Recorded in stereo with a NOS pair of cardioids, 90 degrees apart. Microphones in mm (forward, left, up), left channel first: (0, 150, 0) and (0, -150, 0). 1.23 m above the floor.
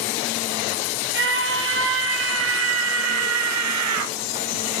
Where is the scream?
40° right, 6 m; by 4.1 s 80° right, 2.5 m.